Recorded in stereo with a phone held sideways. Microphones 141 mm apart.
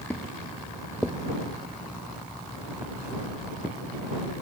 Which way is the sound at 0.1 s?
10° left (ahead or behind).